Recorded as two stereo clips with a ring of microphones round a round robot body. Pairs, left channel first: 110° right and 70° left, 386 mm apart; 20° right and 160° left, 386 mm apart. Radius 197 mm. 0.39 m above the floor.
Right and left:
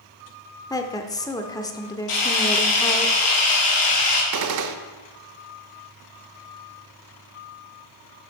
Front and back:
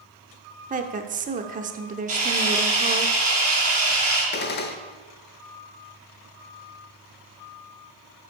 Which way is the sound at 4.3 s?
35° left.